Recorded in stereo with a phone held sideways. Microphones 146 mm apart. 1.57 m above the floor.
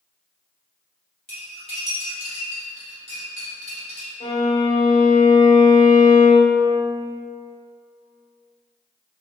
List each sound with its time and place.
1.3 s cutlery clinking: 45° left (ahead or behind), 1.8 m
4.2 s a violin: 30° left (ahead or behind), 1.9 m